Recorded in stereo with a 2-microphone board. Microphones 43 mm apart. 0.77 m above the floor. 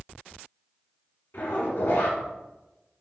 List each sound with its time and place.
1.3 s a zipper: 70° left (ahead or behind), 1.5 m